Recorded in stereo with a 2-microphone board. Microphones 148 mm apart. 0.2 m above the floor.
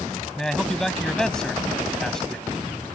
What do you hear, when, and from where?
0.4 s a man speaking: 5° left (ahead or behind)